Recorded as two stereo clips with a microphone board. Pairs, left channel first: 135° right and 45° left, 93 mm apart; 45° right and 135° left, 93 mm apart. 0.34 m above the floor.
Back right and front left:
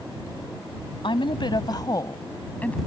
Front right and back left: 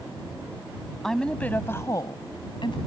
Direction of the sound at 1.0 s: 130° right.